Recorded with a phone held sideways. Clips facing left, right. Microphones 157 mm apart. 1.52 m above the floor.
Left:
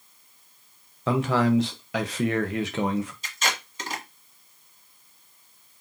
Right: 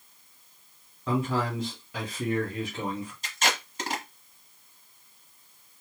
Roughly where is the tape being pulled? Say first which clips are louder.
Right 1 dB; right.